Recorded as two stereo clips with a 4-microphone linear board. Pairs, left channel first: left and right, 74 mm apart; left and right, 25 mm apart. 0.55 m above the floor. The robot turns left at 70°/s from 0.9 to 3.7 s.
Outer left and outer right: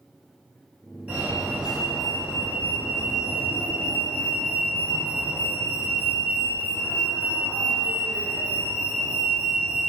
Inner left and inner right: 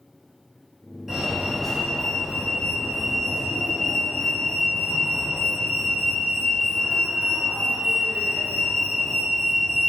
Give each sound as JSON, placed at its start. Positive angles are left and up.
{"t": 1.1, "sound": "a fire alarm", "side_deg": -20, "distance_m": 1.9}